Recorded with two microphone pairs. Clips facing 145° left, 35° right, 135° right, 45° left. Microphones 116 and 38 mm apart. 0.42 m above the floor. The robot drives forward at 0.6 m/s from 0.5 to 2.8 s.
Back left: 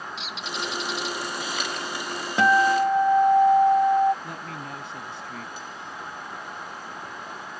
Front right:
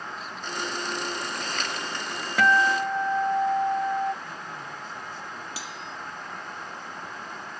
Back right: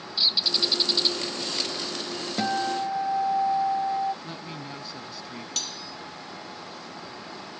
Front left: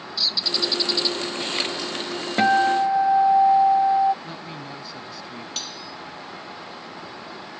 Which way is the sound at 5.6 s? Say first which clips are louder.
Even, front left 1 dB; 35° right.